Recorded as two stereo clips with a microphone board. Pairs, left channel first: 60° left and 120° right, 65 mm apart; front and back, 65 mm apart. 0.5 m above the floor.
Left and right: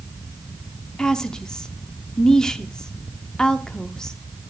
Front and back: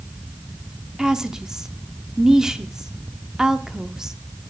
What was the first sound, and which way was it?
A woman speaking, 120° left.